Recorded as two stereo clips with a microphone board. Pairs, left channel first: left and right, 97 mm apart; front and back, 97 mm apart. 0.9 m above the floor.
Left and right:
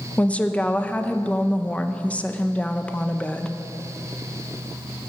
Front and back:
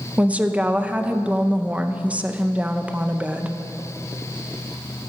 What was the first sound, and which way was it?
A woman speaking, 135° left.